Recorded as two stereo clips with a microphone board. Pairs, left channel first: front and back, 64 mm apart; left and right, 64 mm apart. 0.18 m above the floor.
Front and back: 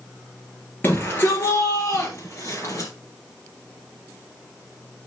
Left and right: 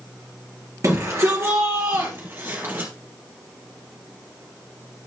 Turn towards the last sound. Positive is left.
turn(degrees=-40)